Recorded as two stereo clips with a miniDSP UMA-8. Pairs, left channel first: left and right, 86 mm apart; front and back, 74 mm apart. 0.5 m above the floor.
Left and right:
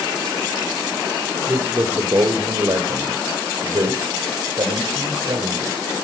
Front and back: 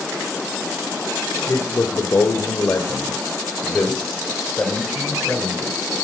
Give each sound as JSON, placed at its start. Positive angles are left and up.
{"t": 1.5, "sound": "a man speaking", "azimuth_deg": -45, "distance_m": 2.0}